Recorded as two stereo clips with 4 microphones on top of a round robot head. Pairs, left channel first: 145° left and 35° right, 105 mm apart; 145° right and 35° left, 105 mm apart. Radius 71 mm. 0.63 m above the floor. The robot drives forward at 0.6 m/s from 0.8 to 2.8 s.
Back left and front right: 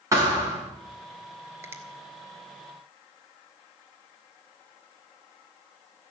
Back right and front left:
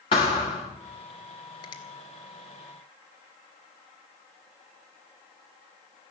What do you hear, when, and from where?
0.1 s a thud: 100° right, 4.5 m
1.6 s a finger snap: 100° right, 1.9 m; by 1.8 s 105° right, 2.0 m